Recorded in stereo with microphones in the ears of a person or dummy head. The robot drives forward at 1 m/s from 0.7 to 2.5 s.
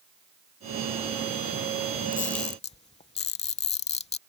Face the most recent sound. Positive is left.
turn(degrees=30)  # may be behind; listen again after turning